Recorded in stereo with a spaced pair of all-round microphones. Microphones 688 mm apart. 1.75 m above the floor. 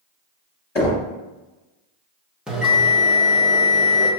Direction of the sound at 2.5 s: Centre (ahead or behind).